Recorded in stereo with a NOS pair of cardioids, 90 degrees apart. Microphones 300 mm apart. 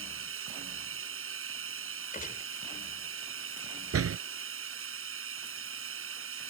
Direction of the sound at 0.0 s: 45° right.